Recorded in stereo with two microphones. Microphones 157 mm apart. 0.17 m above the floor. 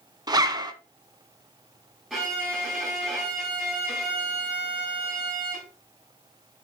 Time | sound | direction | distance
0.3 | a zipper | 25° right (ahead or behind) | 1.0 m
2.1 | a violin | centre (ahead or behind) | 6 m